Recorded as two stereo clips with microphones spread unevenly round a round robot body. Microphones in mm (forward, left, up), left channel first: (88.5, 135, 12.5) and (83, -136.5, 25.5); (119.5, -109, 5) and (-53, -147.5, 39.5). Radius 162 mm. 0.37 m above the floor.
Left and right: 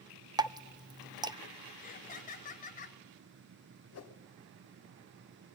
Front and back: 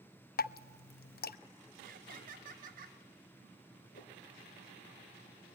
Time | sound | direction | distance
0.4 | dripping | 15° right | 0.6 m
1.8 | laughter | 145° left | 1.3 m
3.9 | a whoosh | 60° left | 1.8 m